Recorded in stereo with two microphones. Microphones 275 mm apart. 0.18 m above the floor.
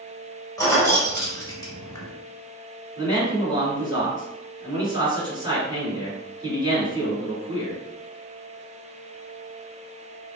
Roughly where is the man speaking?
Centre.